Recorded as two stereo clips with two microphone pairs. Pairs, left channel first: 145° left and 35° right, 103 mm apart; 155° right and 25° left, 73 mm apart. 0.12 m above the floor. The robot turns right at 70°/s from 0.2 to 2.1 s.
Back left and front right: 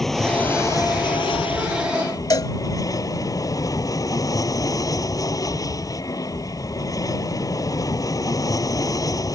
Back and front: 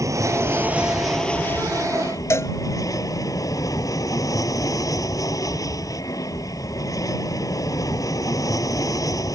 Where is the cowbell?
175° left.